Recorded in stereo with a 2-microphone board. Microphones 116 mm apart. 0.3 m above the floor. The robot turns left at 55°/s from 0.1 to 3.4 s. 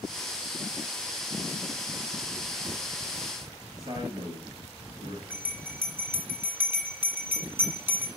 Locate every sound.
3.8 s a man speaking: 40° right (ahead or behind), 1.9 m
5.3 s a bell: 20° right (ahead or behind), 1.7 m